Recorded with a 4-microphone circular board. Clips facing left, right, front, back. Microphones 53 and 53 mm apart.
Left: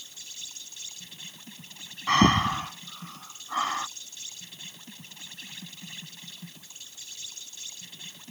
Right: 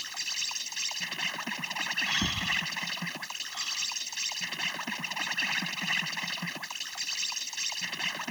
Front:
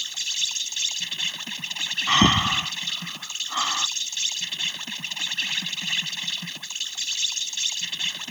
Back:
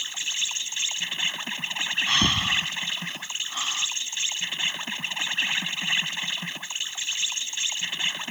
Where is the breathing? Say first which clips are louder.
Left 9 dB, front 6 dB; 60° left.